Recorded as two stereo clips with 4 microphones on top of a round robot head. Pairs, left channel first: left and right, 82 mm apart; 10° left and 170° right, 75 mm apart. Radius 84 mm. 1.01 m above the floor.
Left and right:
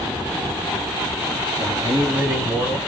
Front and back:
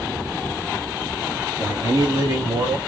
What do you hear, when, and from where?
1.6 s a man speaking: 125° right, 1.0 m; by 2.8 s 160° right, 1.7 m